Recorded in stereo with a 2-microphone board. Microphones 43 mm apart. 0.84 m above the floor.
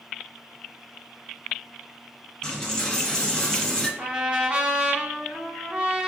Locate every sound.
2.4 s a dropped coin: 10° left (ahead or behind), 1.0 m
4.0 s a trumpet: 30° right (ahead or behind), 0.7 m